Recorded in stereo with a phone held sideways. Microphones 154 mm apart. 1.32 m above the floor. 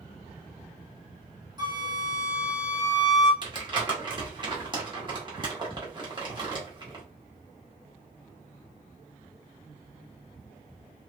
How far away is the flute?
About 1.3 m.